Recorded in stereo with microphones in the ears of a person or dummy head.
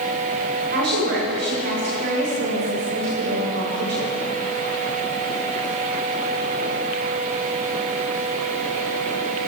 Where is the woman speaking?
65° right (ahead or behind), 7.5 m.